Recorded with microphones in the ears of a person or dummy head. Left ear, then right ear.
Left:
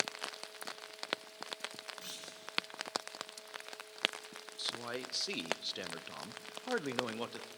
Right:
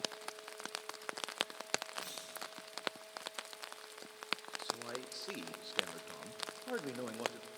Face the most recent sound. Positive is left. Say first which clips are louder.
# left 3 dB
turn(degrees=20)  # may be behind; listen again after turning